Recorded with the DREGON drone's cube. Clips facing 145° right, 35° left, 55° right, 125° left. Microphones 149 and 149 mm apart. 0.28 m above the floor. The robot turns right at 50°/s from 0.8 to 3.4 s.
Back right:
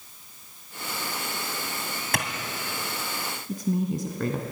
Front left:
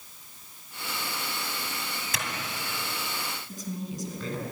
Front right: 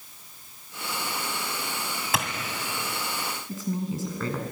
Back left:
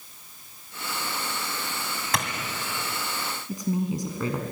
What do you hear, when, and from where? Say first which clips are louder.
2.1 s a clap: back right 7 dB, even; 140° right, 2.5 m; by 2.3 s 135° right, 2.5 m
3.5 s a woman speaking: back right 12 dB, back left 4 dB; 165° right, 2.5 m